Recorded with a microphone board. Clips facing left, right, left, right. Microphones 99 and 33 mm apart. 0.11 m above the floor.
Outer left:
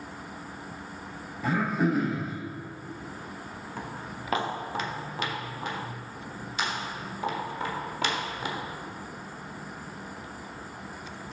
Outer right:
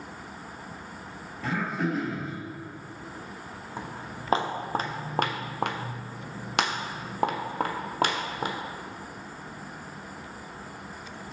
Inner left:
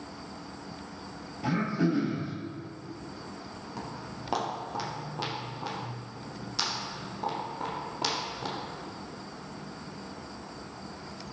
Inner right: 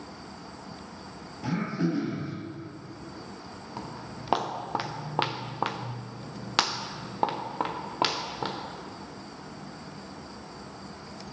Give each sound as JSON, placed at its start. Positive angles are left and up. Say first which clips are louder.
{"t": 1.4, "sound": "throat clearing", "louder": "outer left 3 dB, inner left 1 dB", "side_deg": 10, "distance_m": 2.5}
{"t": 3.8, "sound": "footsteps", "louder": "outer right 1 dB, inner right 1 dB", "side_deg": -20, "distance_m": 2.0}